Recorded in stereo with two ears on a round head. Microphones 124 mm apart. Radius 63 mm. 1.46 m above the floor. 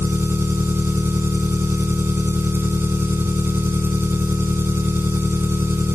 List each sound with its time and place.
0.0 s an engine running: 15° right (ahead or behind)